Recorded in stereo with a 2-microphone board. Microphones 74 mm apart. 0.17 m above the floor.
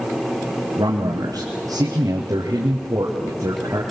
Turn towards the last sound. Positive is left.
turn(degrees=-35)  # may be behind; listen again after turning